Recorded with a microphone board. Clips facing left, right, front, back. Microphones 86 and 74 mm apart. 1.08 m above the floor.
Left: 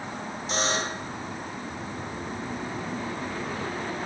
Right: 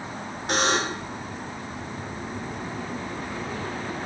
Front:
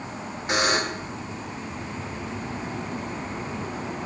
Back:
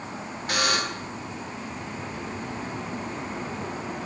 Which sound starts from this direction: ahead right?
A buzzer, at 0.5 s.